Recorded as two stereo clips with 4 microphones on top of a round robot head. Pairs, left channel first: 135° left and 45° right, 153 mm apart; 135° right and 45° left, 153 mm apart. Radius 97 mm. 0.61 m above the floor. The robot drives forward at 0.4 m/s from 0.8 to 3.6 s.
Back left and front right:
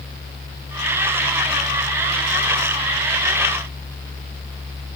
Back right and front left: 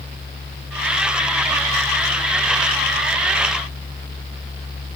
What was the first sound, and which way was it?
Only background noise.